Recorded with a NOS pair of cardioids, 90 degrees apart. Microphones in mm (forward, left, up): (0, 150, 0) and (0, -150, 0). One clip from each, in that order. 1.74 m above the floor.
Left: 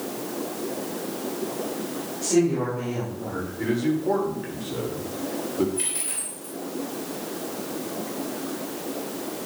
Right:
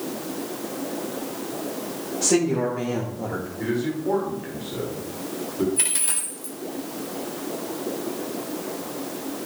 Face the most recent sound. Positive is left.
turn(degrees=-60)